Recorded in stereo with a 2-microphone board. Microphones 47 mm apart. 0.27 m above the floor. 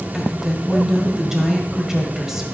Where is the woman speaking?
10° right (ahead or behind), 1.2 m.